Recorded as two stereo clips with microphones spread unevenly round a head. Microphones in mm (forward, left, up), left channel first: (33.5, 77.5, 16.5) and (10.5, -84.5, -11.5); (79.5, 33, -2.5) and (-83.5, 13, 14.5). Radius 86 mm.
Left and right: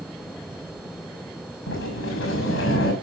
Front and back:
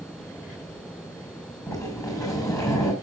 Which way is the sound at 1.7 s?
75° left.